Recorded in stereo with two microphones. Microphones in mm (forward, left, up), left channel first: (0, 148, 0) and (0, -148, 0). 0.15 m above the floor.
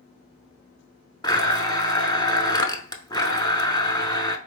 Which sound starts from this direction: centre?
A blender, at 1.2 s.